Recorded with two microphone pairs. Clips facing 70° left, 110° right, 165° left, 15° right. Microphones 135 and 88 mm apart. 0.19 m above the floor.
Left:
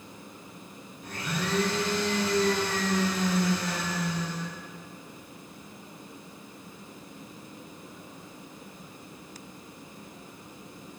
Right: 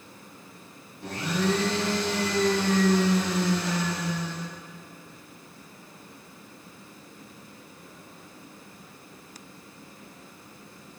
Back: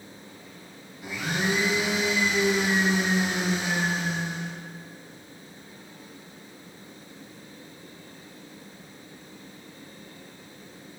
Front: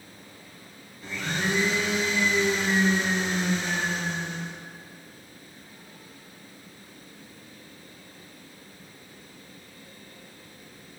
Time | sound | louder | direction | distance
1.0 | a blender | right 6 dB, back 1 dB | 120° right | 3 m